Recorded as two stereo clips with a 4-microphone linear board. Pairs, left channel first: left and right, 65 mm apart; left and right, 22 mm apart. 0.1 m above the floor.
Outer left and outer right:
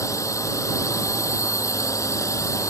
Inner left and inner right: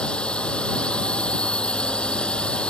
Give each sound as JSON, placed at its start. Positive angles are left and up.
{"t": 0.0, "sound": "a drone", "side_deg": 55}